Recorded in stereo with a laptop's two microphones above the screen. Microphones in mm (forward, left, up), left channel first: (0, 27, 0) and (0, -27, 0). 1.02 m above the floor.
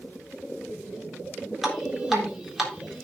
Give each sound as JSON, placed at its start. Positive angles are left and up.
{"t": 1.6, "sound": "dripping", "side_deg": -5, "distance_m": 3.5}